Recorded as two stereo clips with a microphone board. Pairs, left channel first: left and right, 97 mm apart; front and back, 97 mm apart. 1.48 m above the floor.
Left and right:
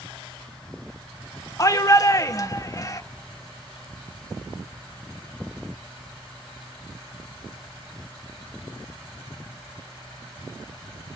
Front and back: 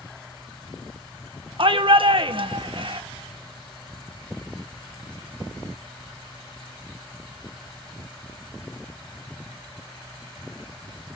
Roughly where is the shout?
Behind left.